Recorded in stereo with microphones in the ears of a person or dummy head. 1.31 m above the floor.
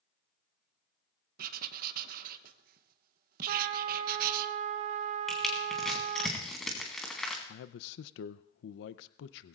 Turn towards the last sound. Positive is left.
turn(degrees=70)  # may be behind; listen again after turning